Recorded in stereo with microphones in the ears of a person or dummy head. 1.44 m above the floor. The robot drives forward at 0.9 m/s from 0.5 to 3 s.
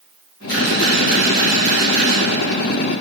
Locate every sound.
0.5 s a camera shutter: 55° left (ahead or behind), 3 m; by 2.2 s 35° left (ahead or behind), 4 m